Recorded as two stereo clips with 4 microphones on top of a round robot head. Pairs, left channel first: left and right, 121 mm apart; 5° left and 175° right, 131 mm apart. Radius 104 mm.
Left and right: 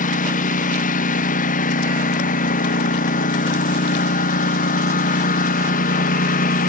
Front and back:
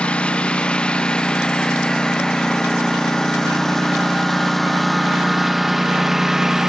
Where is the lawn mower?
85° left; by 6.7 s 100° left.